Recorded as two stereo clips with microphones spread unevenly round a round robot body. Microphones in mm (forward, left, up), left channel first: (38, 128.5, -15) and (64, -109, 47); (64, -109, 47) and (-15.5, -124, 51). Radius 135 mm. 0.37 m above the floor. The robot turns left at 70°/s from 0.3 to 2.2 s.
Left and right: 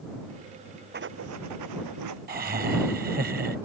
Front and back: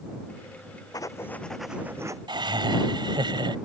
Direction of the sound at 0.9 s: 35° right.